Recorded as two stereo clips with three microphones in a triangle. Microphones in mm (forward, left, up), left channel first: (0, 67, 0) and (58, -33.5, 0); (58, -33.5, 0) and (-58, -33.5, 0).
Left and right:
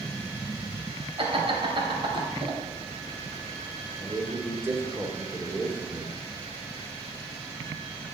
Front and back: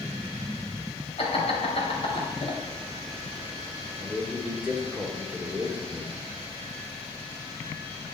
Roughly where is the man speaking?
Right.